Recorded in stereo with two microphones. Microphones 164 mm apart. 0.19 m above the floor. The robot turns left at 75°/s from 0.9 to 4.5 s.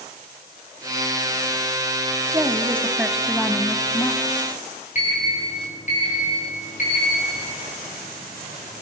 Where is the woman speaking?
20° right (ahead or behind), 1.5 m; by 4.2 s 20° left (ahead or behind), 1.5 m.